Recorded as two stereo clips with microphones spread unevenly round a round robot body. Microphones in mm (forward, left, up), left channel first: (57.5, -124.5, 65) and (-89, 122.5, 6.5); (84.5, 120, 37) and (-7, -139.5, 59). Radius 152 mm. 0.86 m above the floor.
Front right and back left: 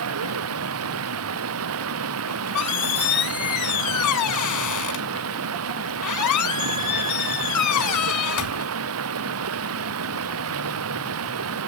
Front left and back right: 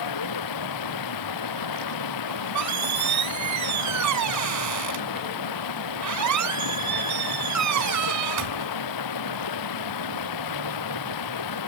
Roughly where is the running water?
Left.